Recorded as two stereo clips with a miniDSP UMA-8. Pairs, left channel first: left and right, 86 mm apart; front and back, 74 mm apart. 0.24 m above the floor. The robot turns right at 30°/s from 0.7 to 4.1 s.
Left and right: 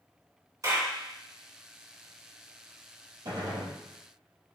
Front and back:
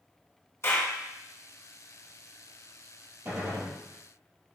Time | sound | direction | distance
0.6 | a clap | 50° right | 2 m
3.2 | a gunshot | 125° right | 2.5 m